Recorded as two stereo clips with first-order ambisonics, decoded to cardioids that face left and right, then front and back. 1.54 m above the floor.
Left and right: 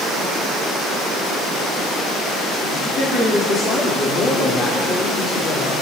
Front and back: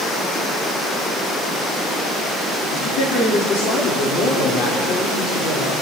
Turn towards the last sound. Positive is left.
turn(degrees=30)